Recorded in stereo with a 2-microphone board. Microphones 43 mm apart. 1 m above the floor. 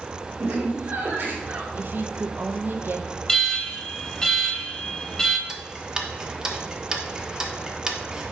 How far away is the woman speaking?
About 0.8 m.